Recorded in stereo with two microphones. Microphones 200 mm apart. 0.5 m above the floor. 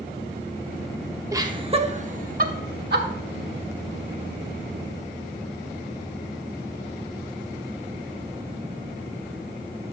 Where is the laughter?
15° right (ahead or behind), 1.0 m; by 3.1 s 55° right (ahead or behind), 1.7 m.